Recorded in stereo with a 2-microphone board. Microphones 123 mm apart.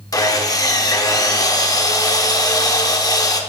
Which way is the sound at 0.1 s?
30° left (ahead or behind).